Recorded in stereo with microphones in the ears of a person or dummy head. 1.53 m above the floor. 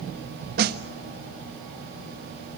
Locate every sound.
0.6 s a snare drum: 50° right (ahead or behind), 1.4 m